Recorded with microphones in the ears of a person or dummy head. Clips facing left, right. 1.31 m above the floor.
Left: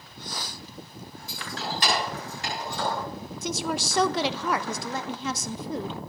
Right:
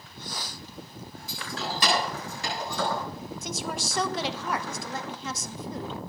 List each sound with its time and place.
1.3 s keys jangling: 85° right, 8 m; by 3.0 s 90° right, 9.5 m
3.4 s a woman speaking: 60° left (ahead or behind), 0.9 m